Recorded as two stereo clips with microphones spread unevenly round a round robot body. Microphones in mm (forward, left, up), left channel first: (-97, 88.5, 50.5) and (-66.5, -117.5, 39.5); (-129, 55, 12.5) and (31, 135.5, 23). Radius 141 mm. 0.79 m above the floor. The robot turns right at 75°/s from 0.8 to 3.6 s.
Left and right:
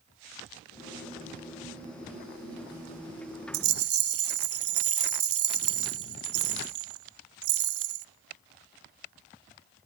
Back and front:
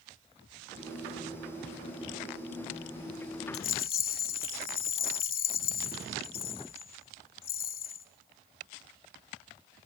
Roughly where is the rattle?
Right.